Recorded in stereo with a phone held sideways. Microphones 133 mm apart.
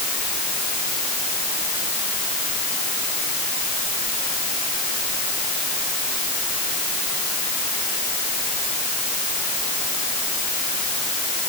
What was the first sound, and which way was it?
Only background noise.